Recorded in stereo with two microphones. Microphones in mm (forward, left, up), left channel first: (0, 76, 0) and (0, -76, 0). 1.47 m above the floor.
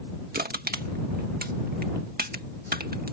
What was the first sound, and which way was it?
Crushing, 80° right.